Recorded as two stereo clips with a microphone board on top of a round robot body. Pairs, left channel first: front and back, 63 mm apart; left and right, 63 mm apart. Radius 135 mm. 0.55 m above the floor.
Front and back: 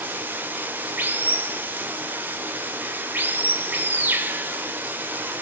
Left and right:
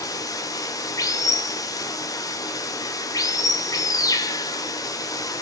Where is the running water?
120° left, 1.1 m.